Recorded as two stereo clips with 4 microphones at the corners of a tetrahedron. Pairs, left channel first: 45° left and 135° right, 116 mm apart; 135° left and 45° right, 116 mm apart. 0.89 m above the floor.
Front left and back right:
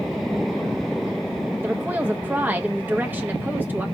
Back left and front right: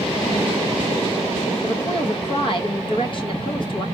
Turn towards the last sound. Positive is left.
turn(degrees=155)